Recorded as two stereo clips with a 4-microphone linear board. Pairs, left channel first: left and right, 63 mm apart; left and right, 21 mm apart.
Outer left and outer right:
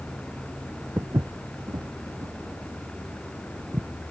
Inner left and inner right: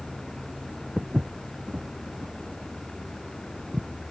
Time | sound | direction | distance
1.0 | footsteps | 60° right (ahead or behind) | ?